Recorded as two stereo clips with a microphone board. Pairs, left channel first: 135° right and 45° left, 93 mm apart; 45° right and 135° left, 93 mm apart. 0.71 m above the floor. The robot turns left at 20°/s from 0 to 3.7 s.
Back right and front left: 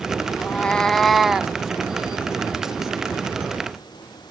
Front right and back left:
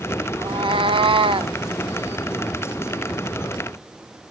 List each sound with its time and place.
0.4 s a cat meowing: 150° left, 0.6 m; by 1.5 s 125° left, 0.6 m